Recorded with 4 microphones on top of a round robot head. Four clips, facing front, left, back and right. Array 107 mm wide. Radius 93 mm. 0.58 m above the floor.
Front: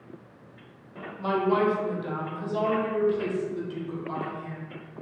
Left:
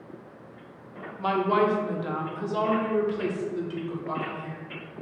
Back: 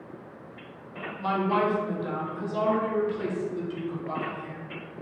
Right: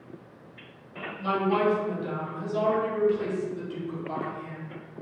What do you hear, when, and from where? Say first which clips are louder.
1.2 s a woman speaking: left 2 dB, front 1 dB; 75° left, 1.8 m; by 4.6 s 95° left, 3.5 m